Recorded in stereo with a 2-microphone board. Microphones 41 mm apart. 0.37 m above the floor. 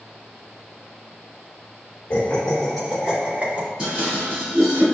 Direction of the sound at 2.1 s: 30° left (ahead or behind).